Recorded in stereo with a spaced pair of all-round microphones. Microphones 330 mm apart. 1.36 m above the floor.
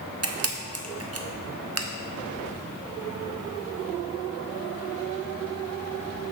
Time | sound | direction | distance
0.2 | a camera shutter | 45° right (ahead or behind) | 0.6 m